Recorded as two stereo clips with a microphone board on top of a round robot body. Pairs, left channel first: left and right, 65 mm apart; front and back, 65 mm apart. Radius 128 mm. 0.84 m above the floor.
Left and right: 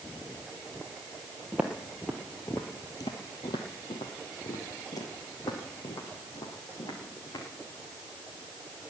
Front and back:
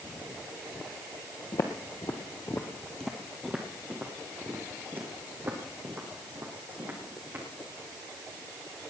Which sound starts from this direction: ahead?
Footsteps, at 1.5 s.